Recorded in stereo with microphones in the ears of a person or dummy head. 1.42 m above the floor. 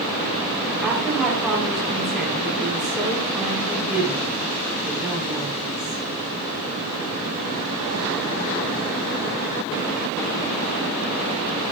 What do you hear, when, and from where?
0.8 s a woman speaking: 5° right (ahead or behind), 4 m